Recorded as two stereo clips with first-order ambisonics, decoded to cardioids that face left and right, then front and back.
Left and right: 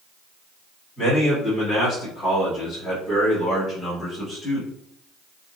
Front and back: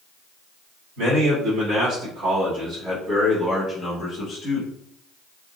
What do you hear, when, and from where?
1.0 s a man speaking: 165° left, 1.7 m; by 4.7 s straight ahead, 1.2 m